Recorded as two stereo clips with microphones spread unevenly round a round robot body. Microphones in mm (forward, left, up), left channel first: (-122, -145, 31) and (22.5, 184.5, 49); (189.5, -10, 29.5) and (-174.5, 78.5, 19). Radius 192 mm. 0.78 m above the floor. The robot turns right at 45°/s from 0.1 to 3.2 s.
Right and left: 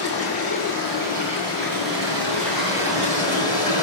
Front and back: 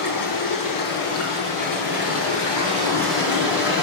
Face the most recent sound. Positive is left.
turn(degrees=80)